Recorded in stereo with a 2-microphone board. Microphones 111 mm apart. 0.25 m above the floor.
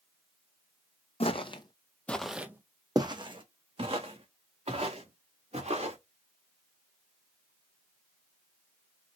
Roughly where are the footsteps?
Left.